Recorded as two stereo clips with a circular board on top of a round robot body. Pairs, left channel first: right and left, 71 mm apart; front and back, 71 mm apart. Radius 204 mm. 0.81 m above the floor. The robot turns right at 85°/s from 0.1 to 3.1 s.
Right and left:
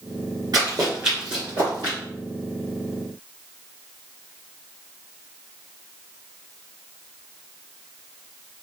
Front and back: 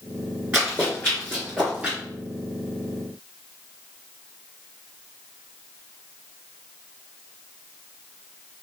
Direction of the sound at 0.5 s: 110° left.